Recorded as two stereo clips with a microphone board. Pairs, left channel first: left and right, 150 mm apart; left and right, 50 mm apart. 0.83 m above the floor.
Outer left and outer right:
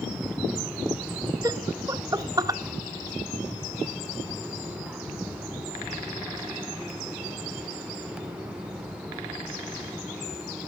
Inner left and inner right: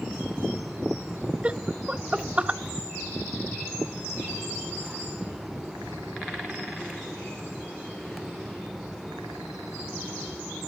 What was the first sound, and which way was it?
Laughter, 25° right (ahead or behind).